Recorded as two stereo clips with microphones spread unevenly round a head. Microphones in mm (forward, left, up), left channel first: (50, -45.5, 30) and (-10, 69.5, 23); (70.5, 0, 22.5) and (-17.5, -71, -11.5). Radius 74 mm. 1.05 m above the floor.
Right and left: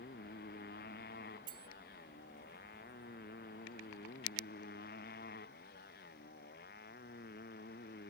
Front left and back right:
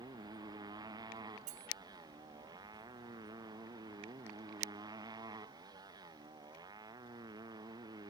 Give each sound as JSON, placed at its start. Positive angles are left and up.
{"t": 0.0, "sound": "a motorcycle", "azimuth_deg": -85}
{"t": 1.5, "sound": "cutlery clinking", "azimuth_deg": 180}